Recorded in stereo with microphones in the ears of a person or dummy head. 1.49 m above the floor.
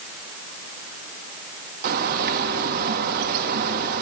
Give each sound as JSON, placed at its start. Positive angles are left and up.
{"t": 1.8, "sound": "a bird", "side_deg": -55, "distance_m": 1.3}